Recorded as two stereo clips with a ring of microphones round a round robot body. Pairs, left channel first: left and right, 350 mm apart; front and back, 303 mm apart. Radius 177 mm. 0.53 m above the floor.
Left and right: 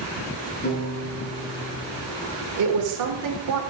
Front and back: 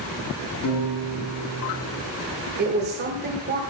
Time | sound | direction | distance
0.6 | a piano | 20° left | 4.5 m
2.6 | a woman speaking | 120° right | 1.6 m